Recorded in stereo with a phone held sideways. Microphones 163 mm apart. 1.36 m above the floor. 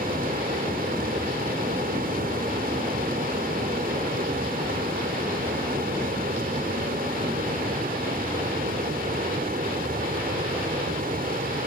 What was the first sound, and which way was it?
A fan, 65° right (ahead or behind).